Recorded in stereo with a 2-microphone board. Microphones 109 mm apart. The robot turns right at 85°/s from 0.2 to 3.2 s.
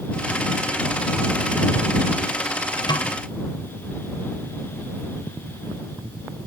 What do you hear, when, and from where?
2.9 s a snare drum: 40° left (ahead or behind); by 3.1 s 60° left (ahead or behind)